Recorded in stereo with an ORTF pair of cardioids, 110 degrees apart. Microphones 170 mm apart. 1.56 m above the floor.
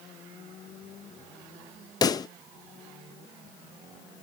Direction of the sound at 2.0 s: 25° left.